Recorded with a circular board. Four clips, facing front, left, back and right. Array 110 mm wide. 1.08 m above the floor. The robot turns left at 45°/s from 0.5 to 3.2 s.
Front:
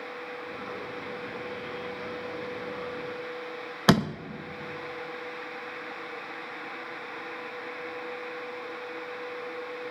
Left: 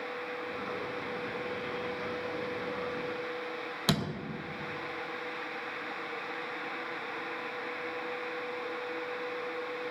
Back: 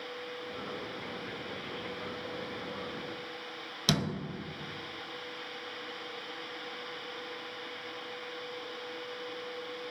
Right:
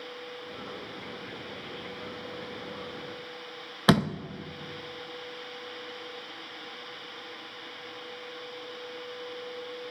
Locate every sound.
3.9 s a door slam: 40° right, 0.7 m